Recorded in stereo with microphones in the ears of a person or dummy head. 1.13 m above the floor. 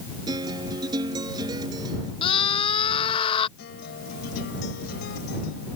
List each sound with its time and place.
0.3 s a guitar: 30° right (ahead or behind)
2.2 s a scream: 30° left (ahead or behind)
3.6 s a guitar: 60° left (ahead or behind)